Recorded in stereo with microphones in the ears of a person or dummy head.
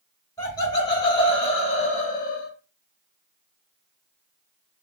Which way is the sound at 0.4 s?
15° left (ahead or behind).